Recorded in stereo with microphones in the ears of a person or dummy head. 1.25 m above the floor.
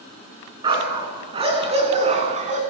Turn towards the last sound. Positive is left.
turn(degrees=-40)  # may be behind; listen again after turning